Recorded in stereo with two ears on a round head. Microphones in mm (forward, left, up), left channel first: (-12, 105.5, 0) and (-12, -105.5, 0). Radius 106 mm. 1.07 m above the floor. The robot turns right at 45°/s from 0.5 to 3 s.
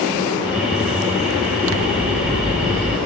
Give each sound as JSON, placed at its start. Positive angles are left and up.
{"t": 1.7, "sound": "scissors", "azimuth_deg": -60, "distance_m": 0.9}